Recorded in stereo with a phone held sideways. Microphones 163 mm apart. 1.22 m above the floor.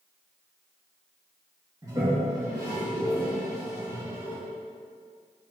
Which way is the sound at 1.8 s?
20° right (ahead or behind).